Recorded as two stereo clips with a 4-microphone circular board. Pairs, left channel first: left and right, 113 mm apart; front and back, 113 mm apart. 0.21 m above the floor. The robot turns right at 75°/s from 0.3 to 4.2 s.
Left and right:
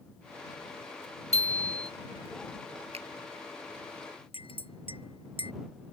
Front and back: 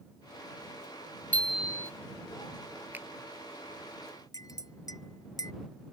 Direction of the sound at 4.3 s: 55° left.